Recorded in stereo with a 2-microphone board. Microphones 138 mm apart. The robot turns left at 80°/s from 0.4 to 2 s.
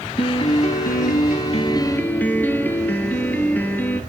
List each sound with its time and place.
0.2 s a piano: 140° left, 1.3 m; by 4.0 s 15° left, 1.3 m